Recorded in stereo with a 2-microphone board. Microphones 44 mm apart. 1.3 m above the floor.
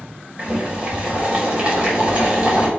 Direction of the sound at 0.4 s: 25° right (ahead or behind).